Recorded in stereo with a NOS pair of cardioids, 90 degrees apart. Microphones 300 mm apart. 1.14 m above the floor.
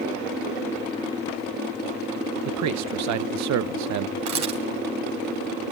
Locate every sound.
2.5 s a man speaking: 65° right, 0.8 m
4.3 s a camera shutter: 65° right, 2.5 m